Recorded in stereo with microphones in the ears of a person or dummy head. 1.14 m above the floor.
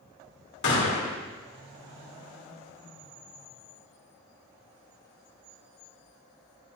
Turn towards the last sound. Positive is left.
turn(degrees=60)  # may be behind; listen again after turning